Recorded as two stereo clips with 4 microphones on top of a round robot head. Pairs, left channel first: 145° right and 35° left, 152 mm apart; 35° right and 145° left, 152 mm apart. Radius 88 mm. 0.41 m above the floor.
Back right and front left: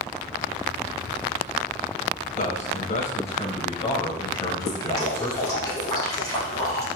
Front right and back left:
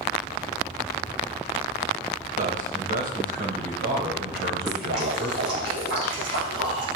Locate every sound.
2.4 s a man speaking: straight behind, 2.5 m; by 5.7 s 140° left, 3 m
4.7 s dripping: 145° left, 4 m